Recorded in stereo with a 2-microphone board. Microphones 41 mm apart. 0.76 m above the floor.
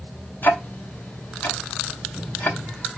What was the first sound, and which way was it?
Ticking, 55° left (ahead or behind).